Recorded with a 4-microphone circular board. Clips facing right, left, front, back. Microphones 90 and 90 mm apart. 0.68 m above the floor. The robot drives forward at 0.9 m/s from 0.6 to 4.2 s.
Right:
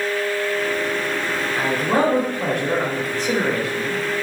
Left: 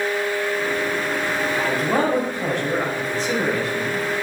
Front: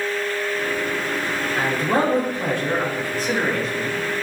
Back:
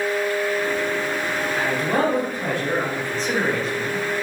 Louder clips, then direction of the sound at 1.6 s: Right 3 dB, front 2 dB; 55° right.